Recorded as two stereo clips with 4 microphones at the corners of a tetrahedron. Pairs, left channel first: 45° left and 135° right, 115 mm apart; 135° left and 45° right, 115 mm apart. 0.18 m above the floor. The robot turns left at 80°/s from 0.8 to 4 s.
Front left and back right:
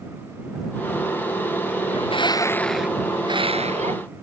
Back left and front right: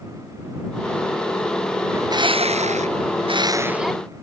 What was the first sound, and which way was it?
A bird, 25° left.